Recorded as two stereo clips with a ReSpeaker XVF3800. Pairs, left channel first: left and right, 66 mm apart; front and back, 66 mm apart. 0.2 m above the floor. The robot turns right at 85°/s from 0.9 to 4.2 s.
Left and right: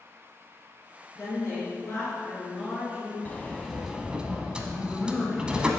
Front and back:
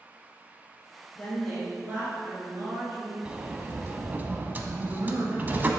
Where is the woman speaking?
55° left, 2.5 m; by 3.1 s 135° right, 2.5 m.